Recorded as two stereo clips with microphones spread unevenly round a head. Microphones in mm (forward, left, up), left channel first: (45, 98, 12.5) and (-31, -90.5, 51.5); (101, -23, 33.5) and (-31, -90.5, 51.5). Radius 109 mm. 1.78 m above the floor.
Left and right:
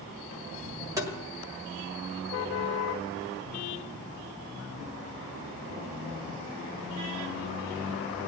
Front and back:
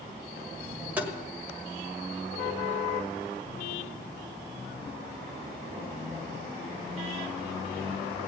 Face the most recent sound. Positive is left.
turn(degrees=-110)